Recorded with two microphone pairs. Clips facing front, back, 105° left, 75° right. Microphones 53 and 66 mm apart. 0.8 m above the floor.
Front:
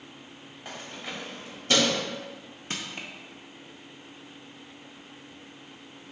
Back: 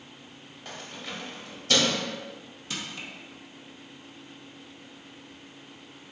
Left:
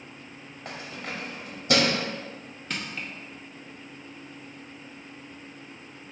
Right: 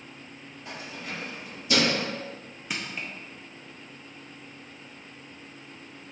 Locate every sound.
0.7 s keys jangling: 70° left, 0.9 m
2.7 s crushing: straight ahead, 0.7 m